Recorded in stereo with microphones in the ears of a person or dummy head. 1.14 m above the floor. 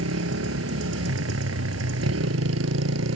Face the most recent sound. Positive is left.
turn(degrees=-85)